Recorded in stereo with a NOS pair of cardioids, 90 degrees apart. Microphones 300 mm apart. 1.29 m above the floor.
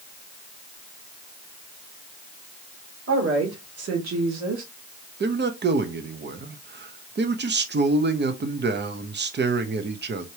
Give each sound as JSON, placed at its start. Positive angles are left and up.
{"t": 3.1, "sound": "a woman speaking", "azimuth_deg": -45, "distance_m": 3.0}
{"t": 5.2, "sound": "a man speaking", "azimuth_deg": -35, "distance_m": 1.0}